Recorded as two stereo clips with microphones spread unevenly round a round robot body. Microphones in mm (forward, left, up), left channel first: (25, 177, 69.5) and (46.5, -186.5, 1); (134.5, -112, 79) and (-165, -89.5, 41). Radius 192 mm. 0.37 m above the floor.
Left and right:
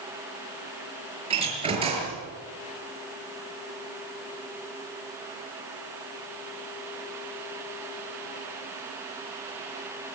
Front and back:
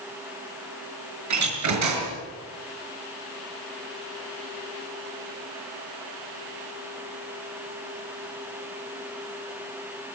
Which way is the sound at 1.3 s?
160° right.